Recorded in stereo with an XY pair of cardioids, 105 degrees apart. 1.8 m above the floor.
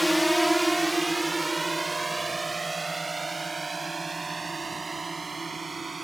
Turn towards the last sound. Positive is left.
turn(degrees=-25)